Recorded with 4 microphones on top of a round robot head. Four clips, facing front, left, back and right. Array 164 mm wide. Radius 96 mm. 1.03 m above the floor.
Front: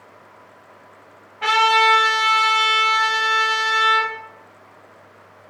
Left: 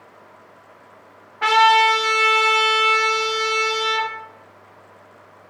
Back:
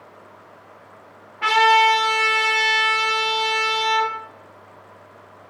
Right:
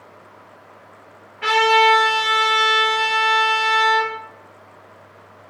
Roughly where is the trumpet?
Left.